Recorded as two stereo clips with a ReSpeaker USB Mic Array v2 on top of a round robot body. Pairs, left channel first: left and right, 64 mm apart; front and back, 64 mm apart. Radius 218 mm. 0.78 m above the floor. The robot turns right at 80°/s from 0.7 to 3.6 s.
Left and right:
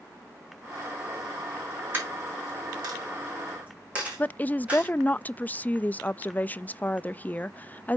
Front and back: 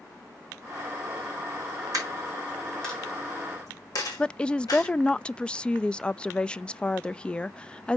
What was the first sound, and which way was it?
A dropped coin, 155° right.